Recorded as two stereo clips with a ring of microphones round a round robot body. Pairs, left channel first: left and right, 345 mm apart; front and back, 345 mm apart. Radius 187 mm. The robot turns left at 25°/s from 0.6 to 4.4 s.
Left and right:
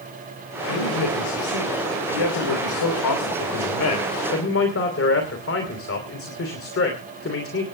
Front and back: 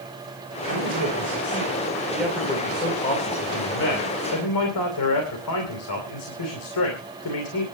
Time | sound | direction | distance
0.7 | a man speaking | 130° left | 3 m